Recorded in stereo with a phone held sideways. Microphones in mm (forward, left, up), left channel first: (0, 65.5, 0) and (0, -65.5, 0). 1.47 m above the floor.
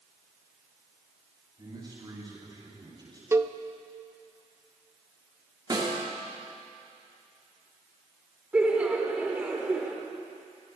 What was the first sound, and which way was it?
A man speaking, 35° right (ahead or behind).